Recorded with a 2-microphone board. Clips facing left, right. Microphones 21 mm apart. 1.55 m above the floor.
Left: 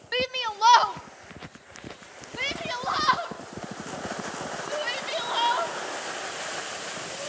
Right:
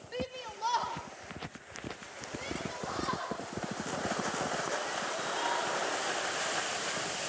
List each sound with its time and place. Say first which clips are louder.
0.1 s a shout: left 12 dB; 50° left (ahead or behind), 0.9 m